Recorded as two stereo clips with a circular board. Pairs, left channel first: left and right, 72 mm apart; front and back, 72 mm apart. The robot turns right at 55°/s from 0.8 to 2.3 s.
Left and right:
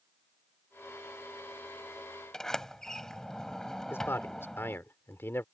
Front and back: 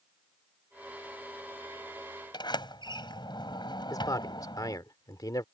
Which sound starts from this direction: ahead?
A sliding door, at 2.3 s.